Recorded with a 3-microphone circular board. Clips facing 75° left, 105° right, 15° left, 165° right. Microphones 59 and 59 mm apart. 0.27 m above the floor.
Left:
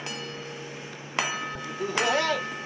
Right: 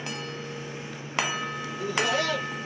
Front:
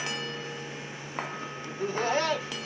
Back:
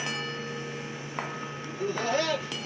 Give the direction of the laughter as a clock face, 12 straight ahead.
10 o'clock.